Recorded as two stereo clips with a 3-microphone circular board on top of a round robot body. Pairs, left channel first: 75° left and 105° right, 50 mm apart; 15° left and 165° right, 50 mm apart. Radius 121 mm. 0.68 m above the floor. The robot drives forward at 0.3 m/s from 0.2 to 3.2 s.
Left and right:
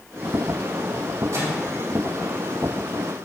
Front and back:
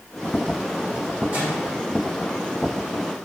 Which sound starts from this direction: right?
A microwave, at 1.3 s.